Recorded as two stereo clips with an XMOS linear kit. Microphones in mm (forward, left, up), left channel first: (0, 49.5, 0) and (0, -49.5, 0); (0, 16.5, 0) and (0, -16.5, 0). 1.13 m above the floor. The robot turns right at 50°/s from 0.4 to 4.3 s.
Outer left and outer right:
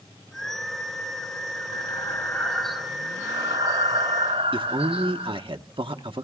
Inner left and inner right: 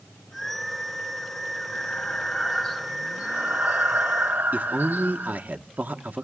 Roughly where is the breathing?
Behind left.